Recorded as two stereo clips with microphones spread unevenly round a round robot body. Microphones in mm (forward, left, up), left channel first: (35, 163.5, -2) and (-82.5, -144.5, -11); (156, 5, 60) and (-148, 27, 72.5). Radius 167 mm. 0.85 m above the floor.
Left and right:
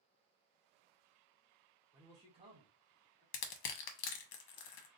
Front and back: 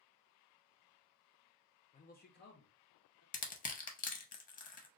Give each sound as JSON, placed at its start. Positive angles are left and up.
{"t": 1.9, "sound": "a man speaking", "azimuth_deg": -35, "distance_m": 0.6}
{"t": 3.3, "sound": "crushing", "azimuth_deg": 60, "distance_m": 0.6}